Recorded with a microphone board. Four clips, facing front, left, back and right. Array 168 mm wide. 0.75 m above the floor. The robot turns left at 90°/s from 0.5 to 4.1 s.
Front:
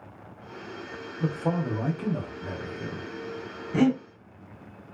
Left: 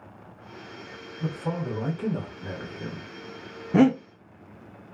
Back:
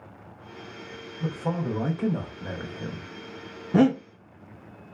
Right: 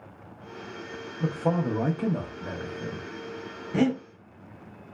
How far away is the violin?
No violin in this recording.